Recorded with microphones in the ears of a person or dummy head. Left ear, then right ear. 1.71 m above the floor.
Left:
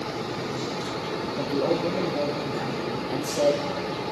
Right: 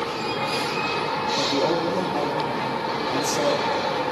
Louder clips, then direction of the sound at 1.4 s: Right 2 dB; 10° right (ahead or behind).